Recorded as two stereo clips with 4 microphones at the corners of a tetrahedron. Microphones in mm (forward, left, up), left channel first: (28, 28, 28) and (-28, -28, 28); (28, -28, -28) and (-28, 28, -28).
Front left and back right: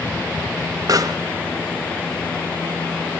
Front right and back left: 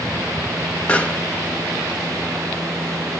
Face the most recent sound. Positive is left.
turn(degrees=-115)